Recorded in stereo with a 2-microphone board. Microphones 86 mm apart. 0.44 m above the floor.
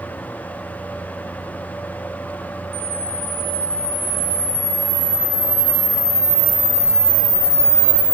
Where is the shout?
No shout in this recording.